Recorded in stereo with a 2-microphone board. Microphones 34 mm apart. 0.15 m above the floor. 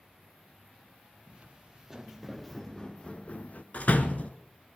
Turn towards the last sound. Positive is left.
turn(degrees=50)  # may be behind; listen again after turning